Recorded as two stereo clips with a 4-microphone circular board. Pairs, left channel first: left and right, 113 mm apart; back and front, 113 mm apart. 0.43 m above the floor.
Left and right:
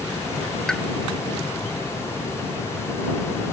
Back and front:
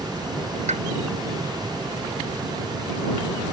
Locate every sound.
0.7 s a pop: 5° left